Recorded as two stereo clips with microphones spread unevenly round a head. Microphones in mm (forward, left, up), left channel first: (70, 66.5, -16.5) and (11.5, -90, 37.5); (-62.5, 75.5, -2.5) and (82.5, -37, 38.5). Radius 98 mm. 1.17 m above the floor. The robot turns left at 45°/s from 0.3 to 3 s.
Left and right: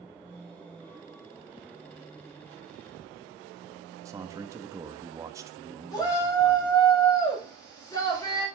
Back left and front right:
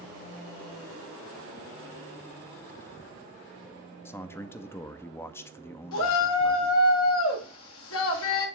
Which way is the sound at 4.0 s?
160° left.